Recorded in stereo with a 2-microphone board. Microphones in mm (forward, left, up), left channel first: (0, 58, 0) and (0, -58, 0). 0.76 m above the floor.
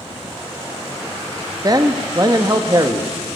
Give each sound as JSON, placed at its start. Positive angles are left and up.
{"t": 1.6, "sound": "a man speaking", "side_deg": -35, "distance_m": 0.6}